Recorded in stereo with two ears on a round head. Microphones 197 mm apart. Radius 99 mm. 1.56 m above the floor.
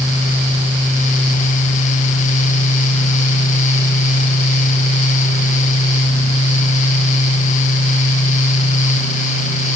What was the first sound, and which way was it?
Only background noise.